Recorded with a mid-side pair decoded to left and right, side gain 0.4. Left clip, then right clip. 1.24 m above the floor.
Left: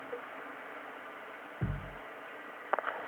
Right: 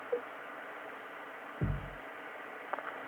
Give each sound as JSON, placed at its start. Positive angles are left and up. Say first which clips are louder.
{"t": 1.6, "sound": "a thud", "louder": "right 1 dB", "azimuth_deg": -30, "distance_m": 1.5}